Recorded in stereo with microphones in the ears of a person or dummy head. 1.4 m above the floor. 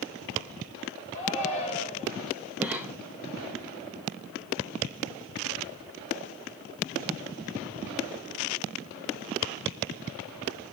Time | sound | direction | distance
1.1 | a shout | 40° left (ahead or behind) | 3.5 m
2.6 | a cough | 10° right (ahead or behind) | 0.9 m